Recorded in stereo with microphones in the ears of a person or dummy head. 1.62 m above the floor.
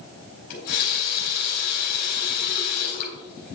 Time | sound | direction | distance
0.5 | a running tap | 40° left (ahead or behind) | 4 m